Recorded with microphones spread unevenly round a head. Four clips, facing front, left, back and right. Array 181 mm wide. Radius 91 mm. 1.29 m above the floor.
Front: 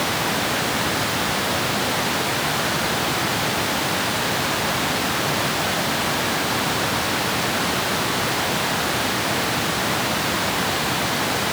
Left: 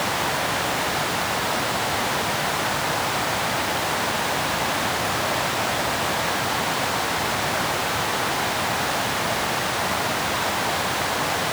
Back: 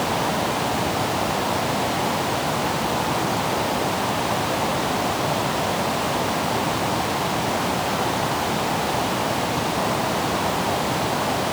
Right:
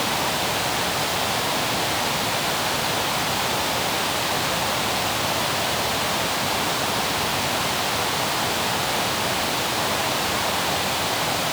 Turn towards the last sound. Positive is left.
No sound to turn to.